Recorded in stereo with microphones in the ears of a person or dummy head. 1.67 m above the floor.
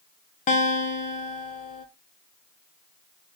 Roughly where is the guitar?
Left.